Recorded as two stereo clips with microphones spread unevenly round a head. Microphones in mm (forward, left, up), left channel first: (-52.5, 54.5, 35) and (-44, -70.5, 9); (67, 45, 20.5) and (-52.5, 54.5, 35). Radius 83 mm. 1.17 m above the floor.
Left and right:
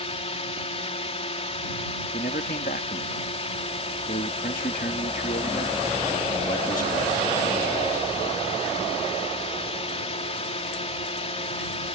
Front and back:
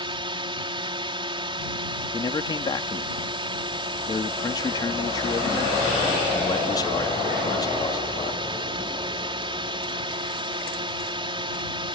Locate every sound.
0.0 s a drone: 130° left
2.1 s a man speaking: 50° left